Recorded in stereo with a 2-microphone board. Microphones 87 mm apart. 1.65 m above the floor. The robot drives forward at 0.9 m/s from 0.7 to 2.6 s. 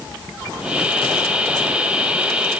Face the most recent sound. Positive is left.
No sound to turn to.